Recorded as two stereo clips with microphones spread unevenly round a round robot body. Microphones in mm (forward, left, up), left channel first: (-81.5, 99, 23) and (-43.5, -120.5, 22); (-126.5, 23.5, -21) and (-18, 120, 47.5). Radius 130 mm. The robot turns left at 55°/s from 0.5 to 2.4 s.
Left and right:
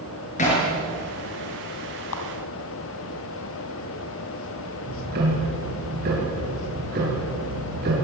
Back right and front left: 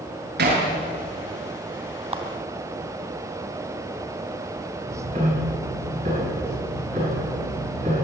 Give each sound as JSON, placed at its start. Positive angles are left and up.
{"t": 0.4, "sound": "hammering", "azimuth_deg": 35, "distance_m": 8.0}
{"t": 2.1, "sound": "a clap", "azimuth_deg": 95, "distance_m": 3.5}
{"t": 4.8, "sound": "ticking", "azimuth_deg": -25, "distance_m": 7.0}